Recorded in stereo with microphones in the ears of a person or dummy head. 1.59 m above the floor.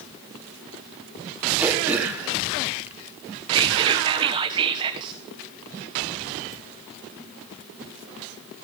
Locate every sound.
1.6 s throat clearing: 10° right (ahead or behind), 1.7 m
3.5 s whispering: 25° right (ahead or behind), 0.9 m